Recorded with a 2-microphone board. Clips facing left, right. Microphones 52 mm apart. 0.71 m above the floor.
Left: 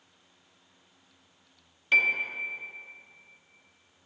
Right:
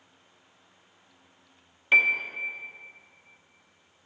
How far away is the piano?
About 0.7 m.